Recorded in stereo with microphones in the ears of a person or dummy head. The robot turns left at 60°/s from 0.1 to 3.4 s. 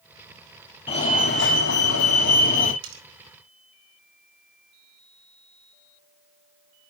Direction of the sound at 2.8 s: 75° right (ahead or behind).